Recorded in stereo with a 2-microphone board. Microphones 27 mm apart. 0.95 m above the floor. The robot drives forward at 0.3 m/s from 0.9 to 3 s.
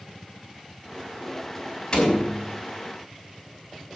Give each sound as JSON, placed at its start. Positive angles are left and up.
{"t": 1.9, "sound": "a door slam", "side_deg": 35, "distance_m": 5.0}